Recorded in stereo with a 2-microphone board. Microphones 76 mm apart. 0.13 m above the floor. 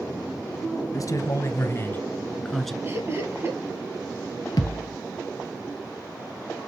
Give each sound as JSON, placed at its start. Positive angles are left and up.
{"t": 0.9, "sound": "a man speaking", "side_deg": 50, "distance_m": 1.8}
{"t": 2.8, "sound": "laughter", "side_deg": -35, "distance_m": 3.0}
{"t": 4.6, "sound": "a thud", "side_deg": 60, "distance_m": 1.1}